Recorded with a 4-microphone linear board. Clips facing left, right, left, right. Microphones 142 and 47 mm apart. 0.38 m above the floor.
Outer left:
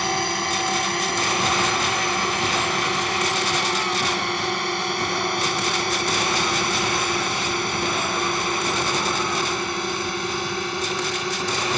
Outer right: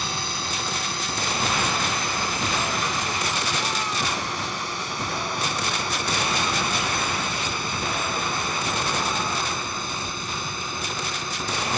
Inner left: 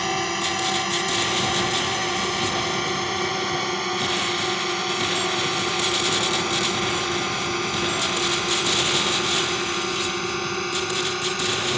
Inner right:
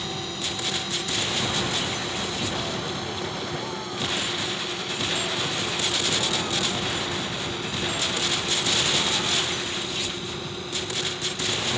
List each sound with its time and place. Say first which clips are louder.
0.0 s a drone: outer left 7 dB, inner left 8 dB; 60° left (ahead or behind); by 11.8 s 65° left (ahead or behind)